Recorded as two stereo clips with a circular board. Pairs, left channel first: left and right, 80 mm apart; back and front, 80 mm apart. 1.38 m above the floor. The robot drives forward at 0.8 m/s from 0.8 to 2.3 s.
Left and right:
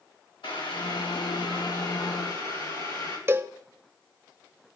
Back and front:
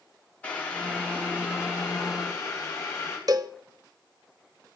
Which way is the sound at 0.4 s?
110° left.